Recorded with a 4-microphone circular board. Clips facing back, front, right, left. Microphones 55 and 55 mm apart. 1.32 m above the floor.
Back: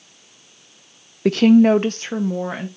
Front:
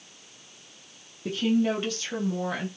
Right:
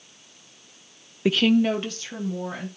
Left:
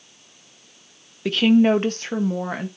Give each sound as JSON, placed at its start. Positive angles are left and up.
{"t": 1.2, "sound": "a woman speaking", "azimuth_deg": -165, "distance_m": 0.6}